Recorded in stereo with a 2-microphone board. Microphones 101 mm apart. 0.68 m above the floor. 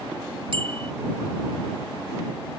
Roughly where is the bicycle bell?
Right.